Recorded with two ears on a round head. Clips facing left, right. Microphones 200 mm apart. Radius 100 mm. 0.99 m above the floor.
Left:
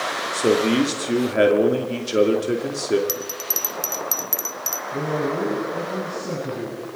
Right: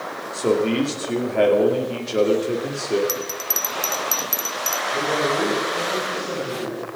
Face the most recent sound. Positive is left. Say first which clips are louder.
# even
turn(degrees=40)  # may be behind; listen again after turning